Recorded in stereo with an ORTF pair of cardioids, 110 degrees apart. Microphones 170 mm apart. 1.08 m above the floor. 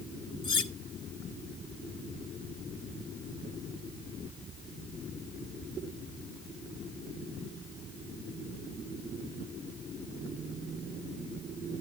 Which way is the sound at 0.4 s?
30° left.